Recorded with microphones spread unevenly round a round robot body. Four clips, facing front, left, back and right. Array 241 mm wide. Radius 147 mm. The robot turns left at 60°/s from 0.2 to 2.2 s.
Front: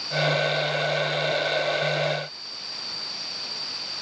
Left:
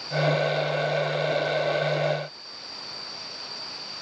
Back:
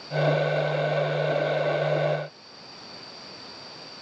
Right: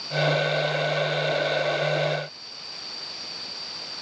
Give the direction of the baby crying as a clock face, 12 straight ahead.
I don't hear a baby crying.